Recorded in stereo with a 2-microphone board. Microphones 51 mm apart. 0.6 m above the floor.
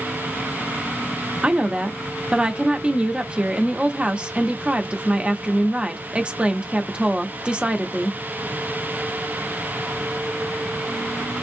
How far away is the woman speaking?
About 0.7 m.